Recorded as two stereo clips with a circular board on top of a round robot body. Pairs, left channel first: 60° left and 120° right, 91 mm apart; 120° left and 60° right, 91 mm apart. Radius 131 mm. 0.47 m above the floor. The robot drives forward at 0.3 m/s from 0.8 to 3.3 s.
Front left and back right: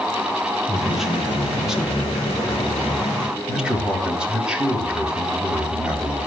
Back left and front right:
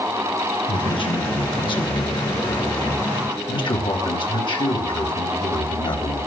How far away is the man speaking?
About 3.5 m.